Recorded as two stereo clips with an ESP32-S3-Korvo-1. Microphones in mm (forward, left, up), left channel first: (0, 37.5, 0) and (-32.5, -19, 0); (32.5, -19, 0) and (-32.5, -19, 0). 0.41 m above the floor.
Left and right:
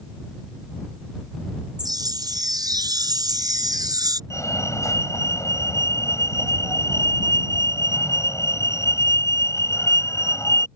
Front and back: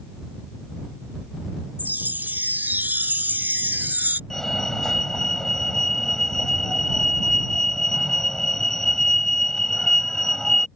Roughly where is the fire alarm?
Left.